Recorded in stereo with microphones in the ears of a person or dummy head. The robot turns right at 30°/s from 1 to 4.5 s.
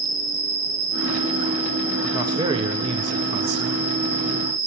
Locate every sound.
0.0 s an insect: 170° left, 5.5 m; by 4.7 s 85° right, 5.5 m
2.1 s a man speaking: 150° right, 0.8 m; by 3.7 s 100° right, 0.8 m